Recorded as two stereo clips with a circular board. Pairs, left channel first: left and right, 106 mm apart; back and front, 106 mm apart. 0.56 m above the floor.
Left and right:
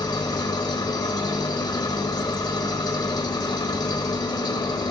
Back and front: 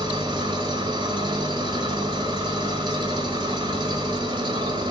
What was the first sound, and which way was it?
An engine running, 40° left.